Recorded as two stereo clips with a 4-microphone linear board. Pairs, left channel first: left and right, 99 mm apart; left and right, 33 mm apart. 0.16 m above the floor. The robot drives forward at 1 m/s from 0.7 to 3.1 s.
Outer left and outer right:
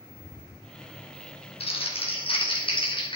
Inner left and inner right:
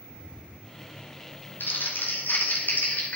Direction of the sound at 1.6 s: 80° left.